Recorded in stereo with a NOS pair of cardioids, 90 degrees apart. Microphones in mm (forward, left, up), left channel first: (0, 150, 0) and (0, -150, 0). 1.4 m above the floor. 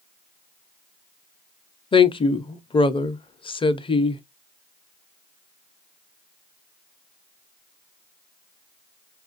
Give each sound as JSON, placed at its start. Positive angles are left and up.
{"t": 1.9, "sound": "a woman speaking", "azimuth_deg": 15, "distance_m": 0.5}